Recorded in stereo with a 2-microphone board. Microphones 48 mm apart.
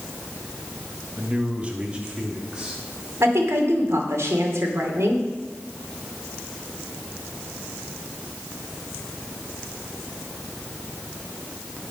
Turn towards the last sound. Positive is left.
turn(degrees=-70)  # may be behind; listen again after turning